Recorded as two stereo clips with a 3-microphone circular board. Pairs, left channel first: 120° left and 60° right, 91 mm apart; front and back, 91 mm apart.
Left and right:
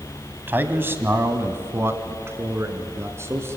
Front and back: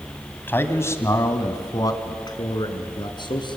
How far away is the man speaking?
About 1.5 m.